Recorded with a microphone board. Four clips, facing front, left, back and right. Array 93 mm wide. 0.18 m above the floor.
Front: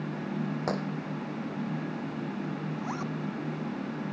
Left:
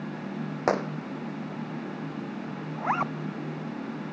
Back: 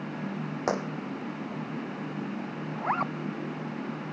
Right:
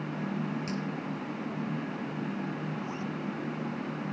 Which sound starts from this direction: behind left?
A zipper, at 2.8 s.